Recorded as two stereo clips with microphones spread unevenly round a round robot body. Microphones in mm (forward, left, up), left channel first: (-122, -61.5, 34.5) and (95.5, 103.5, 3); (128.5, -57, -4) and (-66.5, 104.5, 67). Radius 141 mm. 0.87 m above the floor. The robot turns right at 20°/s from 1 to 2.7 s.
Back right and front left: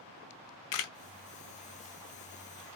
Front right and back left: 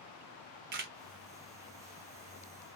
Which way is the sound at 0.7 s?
160° right.